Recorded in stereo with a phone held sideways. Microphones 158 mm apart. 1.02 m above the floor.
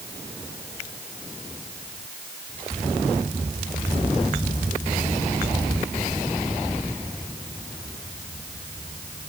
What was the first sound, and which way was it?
Only background noise.